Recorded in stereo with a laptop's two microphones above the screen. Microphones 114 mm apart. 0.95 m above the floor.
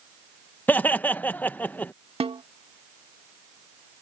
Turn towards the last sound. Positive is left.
turn(degrees=-60)  # may be behind; listen again after turning